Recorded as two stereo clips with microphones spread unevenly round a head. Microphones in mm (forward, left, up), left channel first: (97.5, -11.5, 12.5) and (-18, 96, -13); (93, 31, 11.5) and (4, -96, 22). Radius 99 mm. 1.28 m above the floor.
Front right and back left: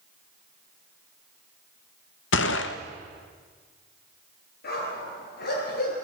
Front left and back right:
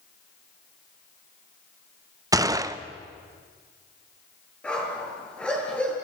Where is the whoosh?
No whoosh in this recording.